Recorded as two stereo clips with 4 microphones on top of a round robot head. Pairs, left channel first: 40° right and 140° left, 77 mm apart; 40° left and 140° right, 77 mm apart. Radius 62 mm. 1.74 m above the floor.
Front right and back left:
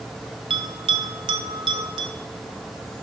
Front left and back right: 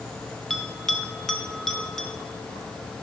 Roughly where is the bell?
Behind left.